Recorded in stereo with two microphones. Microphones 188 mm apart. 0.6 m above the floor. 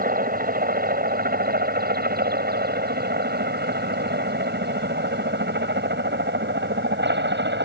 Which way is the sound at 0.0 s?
50° right (ahead or behind).